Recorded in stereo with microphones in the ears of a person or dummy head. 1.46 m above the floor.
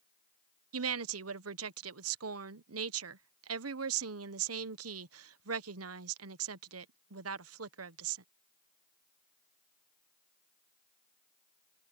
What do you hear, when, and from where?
0.7 s a woman speaking: 80° right